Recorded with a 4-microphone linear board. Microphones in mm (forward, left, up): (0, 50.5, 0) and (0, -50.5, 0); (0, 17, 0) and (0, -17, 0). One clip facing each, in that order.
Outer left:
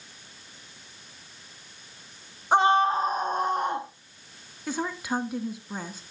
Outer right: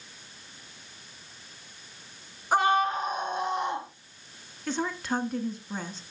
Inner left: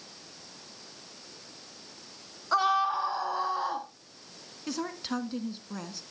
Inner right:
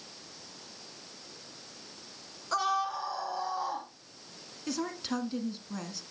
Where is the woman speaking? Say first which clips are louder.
Even, even; 10° left (ahead or behind), 1.3 m.